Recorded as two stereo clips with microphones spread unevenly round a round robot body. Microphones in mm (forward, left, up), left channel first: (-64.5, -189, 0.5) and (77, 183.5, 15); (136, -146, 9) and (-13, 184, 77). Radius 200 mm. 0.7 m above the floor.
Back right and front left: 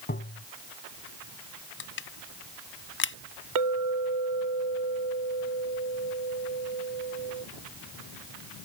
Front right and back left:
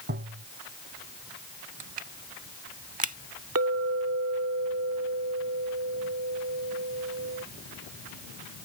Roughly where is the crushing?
Behind.